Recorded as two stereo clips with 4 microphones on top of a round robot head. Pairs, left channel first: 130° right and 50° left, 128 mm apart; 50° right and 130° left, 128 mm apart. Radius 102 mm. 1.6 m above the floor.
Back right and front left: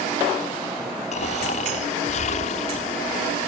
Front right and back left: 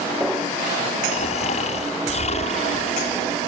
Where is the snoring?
90° right.